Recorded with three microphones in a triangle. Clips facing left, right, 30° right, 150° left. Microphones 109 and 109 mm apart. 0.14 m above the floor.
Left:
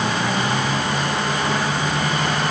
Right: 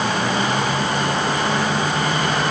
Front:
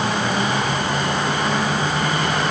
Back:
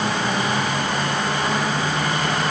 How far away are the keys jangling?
I don't hear keys jangling.